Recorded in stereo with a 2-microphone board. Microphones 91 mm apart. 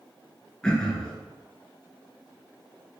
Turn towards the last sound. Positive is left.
turn(degrees=10)  # may be behind; listen again after turning